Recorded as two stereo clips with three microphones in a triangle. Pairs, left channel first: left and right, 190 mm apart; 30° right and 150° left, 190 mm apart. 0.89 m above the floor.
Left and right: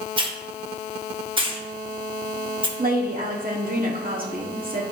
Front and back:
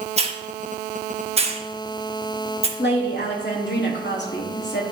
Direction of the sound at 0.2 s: 150° right.